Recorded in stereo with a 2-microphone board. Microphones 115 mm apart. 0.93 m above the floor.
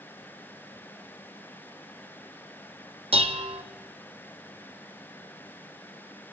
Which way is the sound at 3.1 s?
55° right (ahead or behind).